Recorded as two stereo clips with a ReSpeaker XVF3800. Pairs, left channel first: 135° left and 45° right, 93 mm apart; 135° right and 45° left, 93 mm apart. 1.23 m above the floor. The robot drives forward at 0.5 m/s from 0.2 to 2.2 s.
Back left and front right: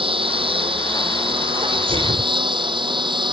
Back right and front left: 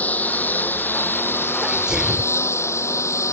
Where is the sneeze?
35° right; by 2.3 s 40° right.